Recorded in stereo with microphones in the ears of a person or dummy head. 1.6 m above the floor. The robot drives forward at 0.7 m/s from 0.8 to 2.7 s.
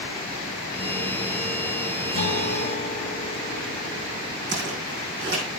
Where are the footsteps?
15° right (ahead or behind), 5.5 m.